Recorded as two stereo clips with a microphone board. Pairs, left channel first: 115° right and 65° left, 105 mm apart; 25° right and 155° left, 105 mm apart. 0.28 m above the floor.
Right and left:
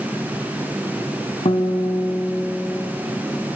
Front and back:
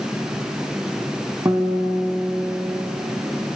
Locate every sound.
1.4 s a guitar: 140° right, 0.9 m